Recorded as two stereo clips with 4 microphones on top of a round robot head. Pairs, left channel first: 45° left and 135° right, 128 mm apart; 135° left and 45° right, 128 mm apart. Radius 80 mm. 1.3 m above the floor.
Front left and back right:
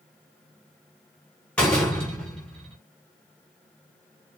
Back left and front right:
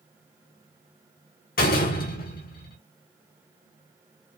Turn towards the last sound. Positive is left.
turn(degrees=130)